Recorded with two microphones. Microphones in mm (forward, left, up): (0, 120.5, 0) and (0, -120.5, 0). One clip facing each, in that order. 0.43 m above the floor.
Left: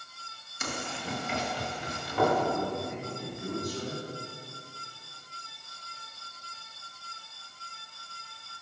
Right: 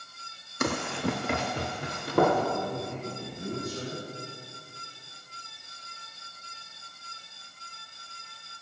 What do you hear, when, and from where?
0.6 s running footsteps: 65° right (ahead or behind), 0.9 m; by 2.4 s 55° right (ahead or behind), 3.5 m
2.5 s a man speaking: 25° right (ahead or behind), 3.5 m